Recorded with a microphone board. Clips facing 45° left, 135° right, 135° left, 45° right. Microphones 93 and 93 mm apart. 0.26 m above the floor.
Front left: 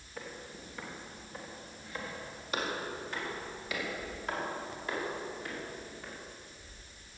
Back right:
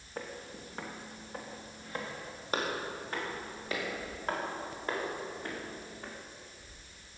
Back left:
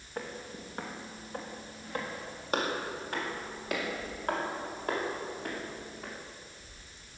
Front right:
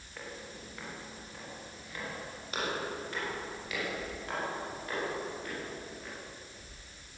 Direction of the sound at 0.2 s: Straight behind.